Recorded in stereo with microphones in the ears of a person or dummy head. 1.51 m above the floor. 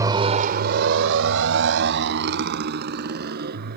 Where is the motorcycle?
25° right (ahead or behind); by 3.8 s 50° right (ahead or behind).